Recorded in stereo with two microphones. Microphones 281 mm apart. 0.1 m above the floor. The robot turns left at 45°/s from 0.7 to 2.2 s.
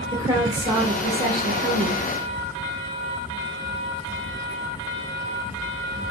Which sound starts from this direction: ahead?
A woman speaking, at 0.1 s.